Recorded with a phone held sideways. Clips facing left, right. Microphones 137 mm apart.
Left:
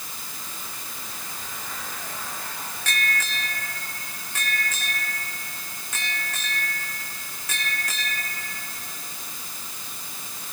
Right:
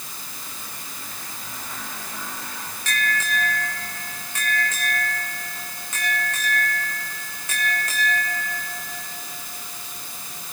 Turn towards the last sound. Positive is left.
No sound to turn to.